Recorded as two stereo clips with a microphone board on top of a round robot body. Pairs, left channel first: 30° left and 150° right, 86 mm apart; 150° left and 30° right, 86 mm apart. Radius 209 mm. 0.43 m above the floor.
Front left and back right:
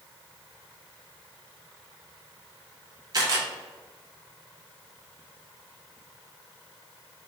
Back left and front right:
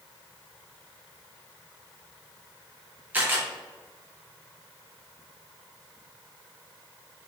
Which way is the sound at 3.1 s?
105° right.